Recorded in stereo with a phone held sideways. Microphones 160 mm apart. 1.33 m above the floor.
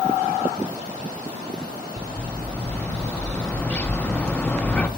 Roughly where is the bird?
Centre.